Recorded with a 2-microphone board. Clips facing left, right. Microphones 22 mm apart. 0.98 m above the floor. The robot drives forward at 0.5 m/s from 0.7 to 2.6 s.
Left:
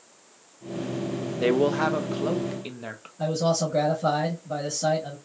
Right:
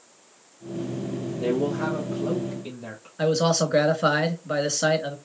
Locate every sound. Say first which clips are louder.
1.4 s a man speaking: left 3 dB; 60° left (ahead or behind), 0.7 m; by 3.1 s 40° left (ahead or behind), 0.9 m
3.2 s a man speaking: right 3 dB; 75° right (ahead or behind), 1.4 m